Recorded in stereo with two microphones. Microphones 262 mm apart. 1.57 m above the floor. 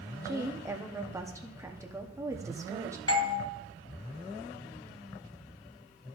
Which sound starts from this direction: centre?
A woman speaking, at 0.2 s.